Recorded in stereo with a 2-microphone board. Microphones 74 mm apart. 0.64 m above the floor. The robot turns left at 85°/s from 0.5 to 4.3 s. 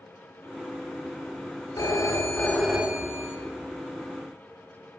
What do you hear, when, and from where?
1.8 s a phone ringing: 75° left, 1.0 m; by 3.4 s 60° right, 1.0 m